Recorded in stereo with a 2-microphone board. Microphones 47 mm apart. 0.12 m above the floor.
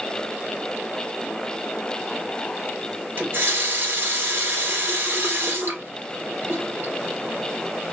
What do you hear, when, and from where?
3.2 s a running tap: 50° right (ahead or behind), 1.4 m